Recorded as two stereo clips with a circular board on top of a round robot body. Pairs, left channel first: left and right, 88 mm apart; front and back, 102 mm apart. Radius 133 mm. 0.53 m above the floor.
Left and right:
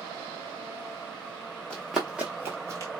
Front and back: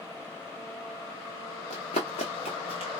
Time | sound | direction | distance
1.7 | running footsteps | 10° left | 0.8 m